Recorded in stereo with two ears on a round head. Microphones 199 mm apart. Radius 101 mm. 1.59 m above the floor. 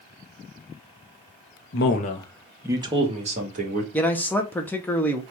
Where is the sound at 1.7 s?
55° left (ahead or behind), 0.8 m; by 3.8 s 40° right (ahead or behind), 2.0 m.